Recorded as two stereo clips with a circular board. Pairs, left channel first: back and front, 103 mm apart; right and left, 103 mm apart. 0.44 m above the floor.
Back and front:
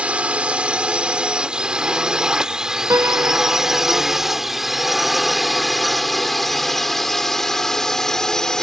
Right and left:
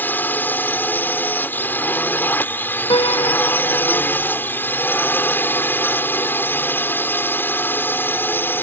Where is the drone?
55° right; by 8.6 s 105° right.